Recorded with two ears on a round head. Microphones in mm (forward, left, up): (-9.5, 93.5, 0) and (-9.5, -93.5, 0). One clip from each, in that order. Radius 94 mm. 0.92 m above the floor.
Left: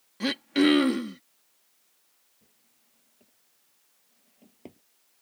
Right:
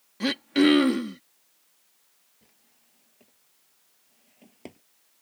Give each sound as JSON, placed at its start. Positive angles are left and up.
{"t": 0.2, "sound": "throat clearing", "side_deg": 5}
{"t": 2.4, "sound": "a drawer", "side_deg": -40}